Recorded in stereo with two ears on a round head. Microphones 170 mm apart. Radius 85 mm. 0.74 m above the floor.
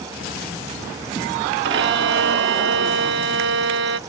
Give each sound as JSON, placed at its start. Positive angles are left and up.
{"t": 1.6, "sound": "a violin", "side_deg": -60}